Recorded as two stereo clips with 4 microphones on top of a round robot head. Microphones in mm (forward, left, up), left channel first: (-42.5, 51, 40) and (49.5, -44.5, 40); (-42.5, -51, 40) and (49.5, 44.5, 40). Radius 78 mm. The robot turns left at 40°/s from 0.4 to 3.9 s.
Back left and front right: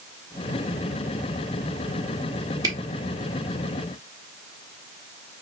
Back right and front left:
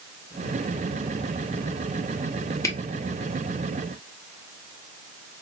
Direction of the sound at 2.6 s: 85° right.